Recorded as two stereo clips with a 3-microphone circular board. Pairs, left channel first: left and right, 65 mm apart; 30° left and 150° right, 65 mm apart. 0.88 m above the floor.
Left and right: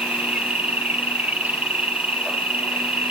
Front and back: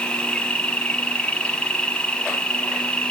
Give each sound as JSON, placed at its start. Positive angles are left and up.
{"t": 0.0, "sound": "an insect", "azimuth_deg": -35, "distance_m": 1.7}